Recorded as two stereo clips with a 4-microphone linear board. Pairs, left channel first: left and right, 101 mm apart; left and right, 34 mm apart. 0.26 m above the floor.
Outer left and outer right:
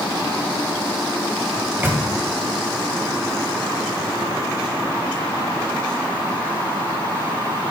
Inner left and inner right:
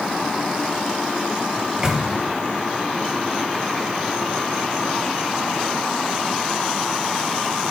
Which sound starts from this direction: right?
A microwave, at 1.6 s.